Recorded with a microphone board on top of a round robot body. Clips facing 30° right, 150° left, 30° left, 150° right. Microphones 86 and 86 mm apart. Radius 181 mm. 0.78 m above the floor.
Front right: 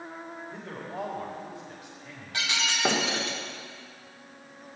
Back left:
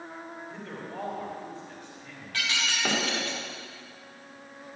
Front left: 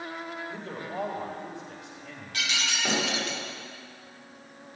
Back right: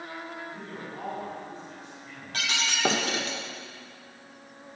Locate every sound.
0.5 s a man speaking: 45° left, 4 m
2.3 s breaking glass: 100° right, 1.6 m